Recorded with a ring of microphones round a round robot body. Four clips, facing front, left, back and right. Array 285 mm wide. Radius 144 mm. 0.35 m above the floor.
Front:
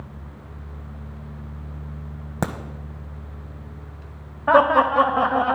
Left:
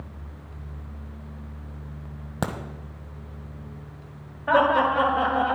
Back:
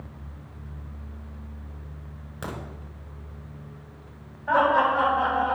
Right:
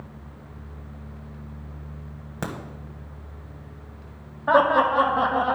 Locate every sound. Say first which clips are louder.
2.4 s a crack: left 3 dB, front 9 dB; 20° left, 1.3 m
4.5 s laughter: right 1 dB, front 5 dB; 15° right, 1.6 m